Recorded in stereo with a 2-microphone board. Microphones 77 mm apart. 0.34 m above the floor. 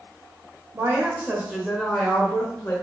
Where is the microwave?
I don't hear a microwave.